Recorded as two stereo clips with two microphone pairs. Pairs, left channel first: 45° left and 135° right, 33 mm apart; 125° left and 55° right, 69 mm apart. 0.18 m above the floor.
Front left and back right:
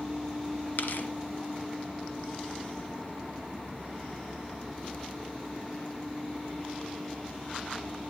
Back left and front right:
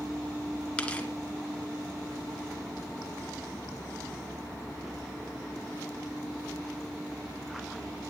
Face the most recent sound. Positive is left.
turn(degrees=55)